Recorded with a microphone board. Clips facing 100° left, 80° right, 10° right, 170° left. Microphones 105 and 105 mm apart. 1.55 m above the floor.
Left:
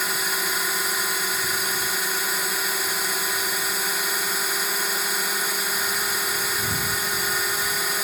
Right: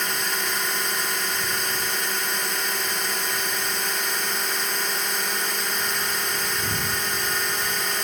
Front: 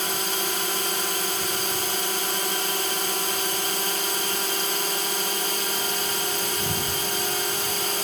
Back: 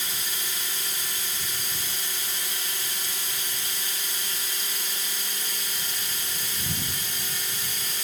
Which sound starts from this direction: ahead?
A drone, at 0.0 s.